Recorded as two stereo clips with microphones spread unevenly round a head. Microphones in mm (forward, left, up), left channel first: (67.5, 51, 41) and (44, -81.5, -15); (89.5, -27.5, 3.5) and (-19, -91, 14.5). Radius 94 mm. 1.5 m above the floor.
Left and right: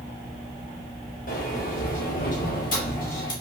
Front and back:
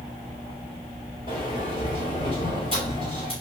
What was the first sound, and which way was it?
A sliding door, 95° left.